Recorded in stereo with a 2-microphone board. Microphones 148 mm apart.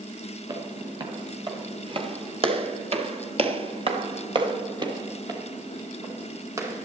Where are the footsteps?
30° right (ahead or behind), 2.0 m; by 6.8 s 20° right (ahead or behind), 2.5 m.